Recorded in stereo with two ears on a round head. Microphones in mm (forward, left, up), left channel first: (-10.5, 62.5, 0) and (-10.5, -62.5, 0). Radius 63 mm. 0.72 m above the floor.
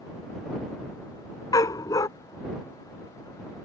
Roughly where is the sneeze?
No sneeze in this recording.